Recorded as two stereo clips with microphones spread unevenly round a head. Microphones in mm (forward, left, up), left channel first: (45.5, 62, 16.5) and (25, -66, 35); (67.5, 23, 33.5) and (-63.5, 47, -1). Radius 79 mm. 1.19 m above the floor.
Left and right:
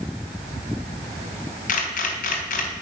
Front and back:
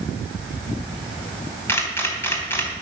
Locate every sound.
1.7 s a camera shutter: 60° left, 3.5 m